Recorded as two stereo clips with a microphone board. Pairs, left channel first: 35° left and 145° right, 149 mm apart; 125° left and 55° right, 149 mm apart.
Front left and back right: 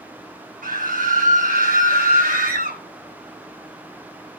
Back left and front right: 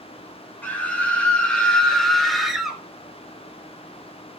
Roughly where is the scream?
Behind right.